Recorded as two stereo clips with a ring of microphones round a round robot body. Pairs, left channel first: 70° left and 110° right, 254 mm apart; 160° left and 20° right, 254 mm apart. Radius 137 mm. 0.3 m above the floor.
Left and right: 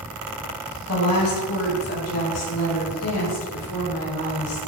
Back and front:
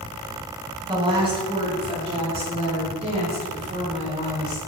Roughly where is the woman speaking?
Ahead left.